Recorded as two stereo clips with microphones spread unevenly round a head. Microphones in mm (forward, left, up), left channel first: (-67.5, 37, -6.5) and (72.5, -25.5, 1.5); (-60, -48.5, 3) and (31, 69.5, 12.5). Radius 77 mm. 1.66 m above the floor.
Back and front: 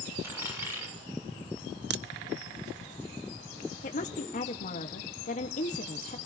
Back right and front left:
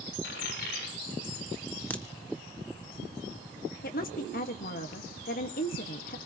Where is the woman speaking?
160° right, 1.5 m.